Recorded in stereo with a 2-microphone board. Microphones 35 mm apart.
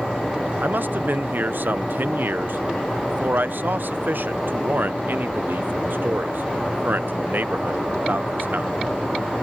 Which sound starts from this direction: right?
A man speaking, at 0.6 s.